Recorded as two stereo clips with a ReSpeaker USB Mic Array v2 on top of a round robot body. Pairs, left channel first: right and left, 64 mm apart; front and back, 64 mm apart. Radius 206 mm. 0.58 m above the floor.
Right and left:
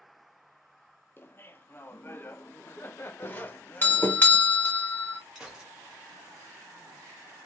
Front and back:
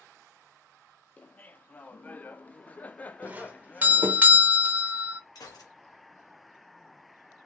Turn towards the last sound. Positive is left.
turn(degrees=10)